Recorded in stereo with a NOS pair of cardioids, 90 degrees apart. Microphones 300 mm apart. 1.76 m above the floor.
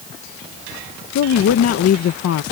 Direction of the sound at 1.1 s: 60° left.